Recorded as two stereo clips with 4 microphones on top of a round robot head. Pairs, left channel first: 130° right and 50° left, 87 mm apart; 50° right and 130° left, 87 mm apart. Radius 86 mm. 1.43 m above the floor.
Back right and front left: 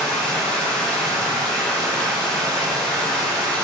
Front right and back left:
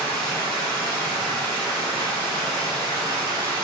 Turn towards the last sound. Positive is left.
turn(degrees=-45)